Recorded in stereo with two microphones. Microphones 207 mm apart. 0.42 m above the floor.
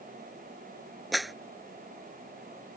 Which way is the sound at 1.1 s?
Centre (ahead or behind).